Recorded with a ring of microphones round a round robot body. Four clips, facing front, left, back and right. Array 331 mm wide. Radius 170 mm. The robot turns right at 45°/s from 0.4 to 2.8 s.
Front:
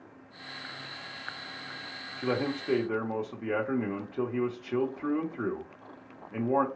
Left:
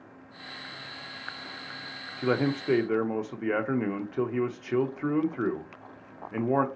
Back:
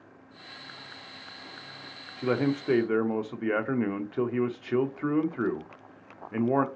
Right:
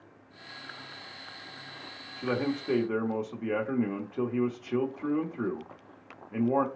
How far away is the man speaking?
About 0.7 m.